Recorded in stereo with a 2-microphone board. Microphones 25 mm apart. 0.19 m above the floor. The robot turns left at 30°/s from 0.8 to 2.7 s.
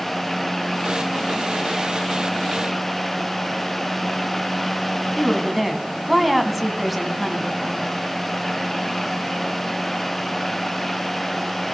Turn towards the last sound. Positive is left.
turn(degrees=-5)  # may be behind; listen again after turning